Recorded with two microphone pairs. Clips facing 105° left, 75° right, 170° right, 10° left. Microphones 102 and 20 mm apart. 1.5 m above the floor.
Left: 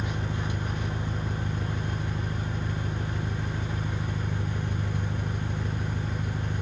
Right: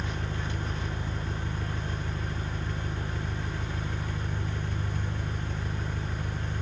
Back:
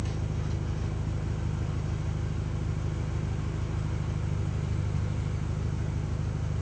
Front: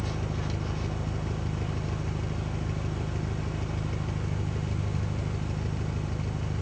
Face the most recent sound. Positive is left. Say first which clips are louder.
# left 3 dB, front 2 dB
turn(degrees=30)